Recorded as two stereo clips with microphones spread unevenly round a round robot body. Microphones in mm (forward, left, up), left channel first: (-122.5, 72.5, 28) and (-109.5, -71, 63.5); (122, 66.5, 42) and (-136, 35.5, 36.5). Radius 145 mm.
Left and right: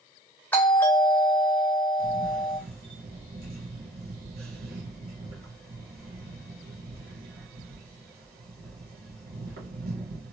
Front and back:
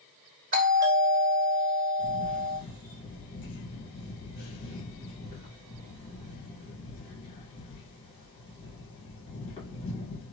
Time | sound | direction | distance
0.5 | a doorbell | 150° left | 1.8 m
2.0 | a camera shutter | 65° right | 1.0 m